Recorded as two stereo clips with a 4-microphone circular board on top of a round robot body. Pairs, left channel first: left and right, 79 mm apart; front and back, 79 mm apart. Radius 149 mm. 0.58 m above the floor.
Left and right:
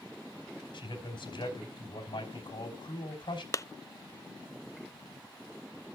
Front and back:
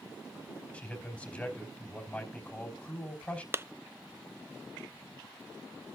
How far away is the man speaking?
About 3.5 m.